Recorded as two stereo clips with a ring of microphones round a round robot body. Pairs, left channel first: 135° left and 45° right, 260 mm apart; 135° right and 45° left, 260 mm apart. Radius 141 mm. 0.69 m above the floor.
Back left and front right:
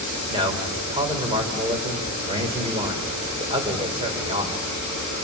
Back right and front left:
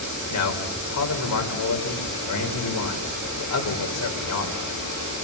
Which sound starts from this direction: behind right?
A man speaking, at 0.3 s.